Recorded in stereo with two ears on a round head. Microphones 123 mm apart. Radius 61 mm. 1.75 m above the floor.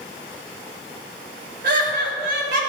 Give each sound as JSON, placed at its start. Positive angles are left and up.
{"t": 1.6, "sound": "laughter", "side_deg": -70, "distance_m": 3.0}